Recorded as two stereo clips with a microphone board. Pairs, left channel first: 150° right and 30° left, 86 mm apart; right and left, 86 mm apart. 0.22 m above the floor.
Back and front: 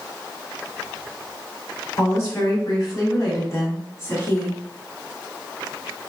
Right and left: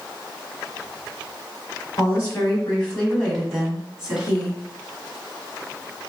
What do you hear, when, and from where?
2.0 s a woman speaking: 125° right, 1.3 m; by 4.6 s 160° left, 1.6 m